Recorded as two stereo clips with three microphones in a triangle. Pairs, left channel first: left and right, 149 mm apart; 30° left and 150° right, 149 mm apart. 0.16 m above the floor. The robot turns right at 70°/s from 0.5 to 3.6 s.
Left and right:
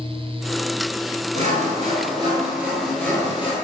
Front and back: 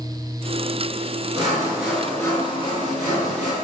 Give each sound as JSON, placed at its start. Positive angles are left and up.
{"t": 1.4, "sound": "sawing", "azimuth_deg": -100, "distance_m": 1.5}